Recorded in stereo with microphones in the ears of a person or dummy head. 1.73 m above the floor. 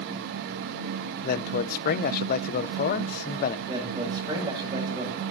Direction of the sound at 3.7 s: 30° right (ahead or behind).